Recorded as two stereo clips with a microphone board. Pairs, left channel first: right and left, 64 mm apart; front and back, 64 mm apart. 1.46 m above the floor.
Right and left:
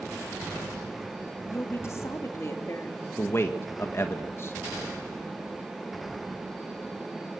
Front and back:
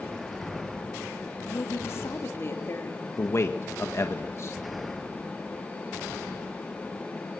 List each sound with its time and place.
1.5 s a woman speaking: 45° right, 3 m
3.2 s a man speaking: 45° right, 1.5 m